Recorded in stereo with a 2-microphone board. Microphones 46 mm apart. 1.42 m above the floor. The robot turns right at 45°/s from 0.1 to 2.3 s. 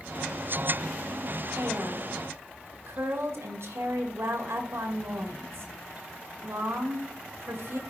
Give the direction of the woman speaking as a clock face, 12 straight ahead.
4 o'clock.